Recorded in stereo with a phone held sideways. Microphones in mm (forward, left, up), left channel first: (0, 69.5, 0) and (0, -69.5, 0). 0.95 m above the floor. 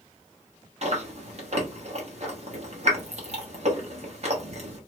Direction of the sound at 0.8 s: 50° right (ahead or behind).